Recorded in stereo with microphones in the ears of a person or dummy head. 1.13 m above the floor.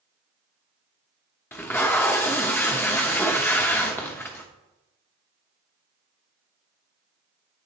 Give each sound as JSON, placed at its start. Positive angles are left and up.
{"t": 1.5, "sound": "tape being pulled", "side_deg": 10, "distance_m": 0.9}